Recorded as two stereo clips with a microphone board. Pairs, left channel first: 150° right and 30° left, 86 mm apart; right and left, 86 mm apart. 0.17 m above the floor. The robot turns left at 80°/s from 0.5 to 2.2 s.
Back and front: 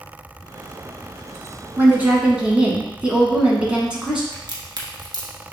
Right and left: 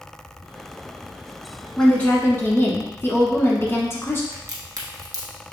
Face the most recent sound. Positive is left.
turn(degrees=50)